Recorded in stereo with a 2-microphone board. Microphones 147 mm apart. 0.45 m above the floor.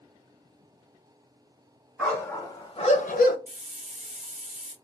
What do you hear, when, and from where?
2.0 s a dog barking: 10° left (ahead or behind), 1.0 m; by 3.4 s 80° left, 0.6 m
3.5 s a hiss: 45° right (ahead or behind), 0.8 m